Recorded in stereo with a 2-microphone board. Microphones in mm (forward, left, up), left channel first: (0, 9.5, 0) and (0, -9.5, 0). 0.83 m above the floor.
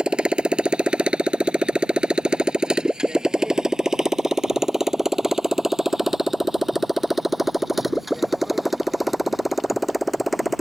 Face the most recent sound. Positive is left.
turn(degrees=0)  # may be behind; listen again after turning